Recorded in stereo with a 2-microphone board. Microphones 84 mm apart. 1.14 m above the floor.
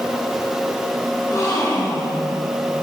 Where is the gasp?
40° left (ahead or behind), 5.5 m.